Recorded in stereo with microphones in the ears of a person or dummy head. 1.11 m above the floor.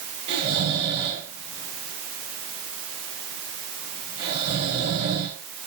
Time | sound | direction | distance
0.3 | snoring | 30° right (ahead or behind) | 3.5 m